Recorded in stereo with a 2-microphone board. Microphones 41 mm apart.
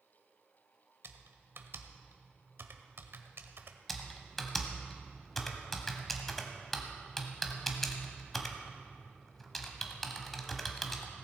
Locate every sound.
1.0 s typing on a keyboard: 70° right (ahead or behind), 1.0 m
3.9 s typing on a keyboard: 5° left (ahead or behind), 1.3 m